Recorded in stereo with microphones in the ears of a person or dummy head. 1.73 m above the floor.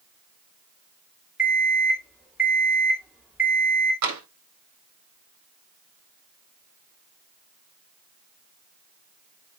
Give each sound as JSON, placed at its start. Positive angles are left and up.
{"t": 1.4, "sound": "an alarm clock", "side_deg": -5, "distance_m": 2.5}
{"t": 4.0, "sound": "tapping", "side_deg": -80, "distance_m": 4.0}